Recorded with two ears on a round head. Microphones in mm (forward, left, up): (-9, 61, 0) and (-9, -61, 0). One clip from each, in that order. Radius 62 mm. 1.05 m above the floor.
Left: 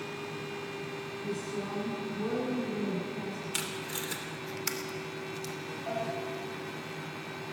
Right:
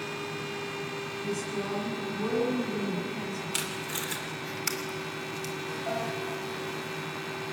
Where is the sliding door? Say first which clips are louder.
Right 1 dB; 45° right (ahead or behind), 4.5 m.